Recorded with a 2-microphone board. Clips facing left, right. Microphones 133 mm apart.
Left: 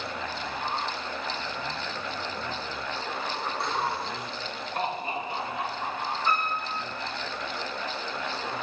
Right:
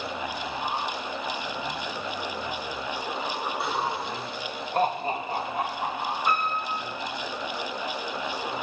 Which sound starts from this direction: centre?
Laughter, at 3.6 s.